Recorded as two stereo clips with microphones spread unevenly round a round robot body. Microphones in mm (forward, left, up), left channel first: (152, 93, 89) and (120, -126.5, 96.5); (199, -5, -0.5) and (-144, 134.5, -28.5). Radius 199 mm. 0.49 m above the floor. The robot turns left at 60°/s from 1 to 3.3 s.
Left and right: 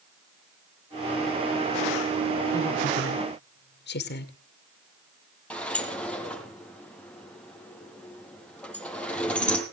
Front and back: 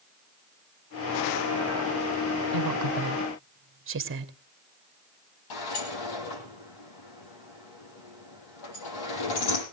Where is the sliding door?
5° right, 6.5 m.